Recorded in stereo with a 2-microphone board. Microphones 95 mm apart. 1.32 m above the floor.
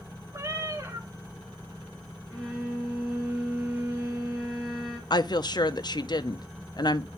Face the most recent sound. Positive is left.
turn(degrees=50)  # may be behind; listen again after turning